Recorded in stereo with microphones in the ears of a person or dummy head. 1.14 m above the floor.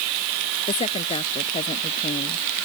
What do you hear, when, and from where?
0.7 s a woman speaking: 30° left (ahead or behind)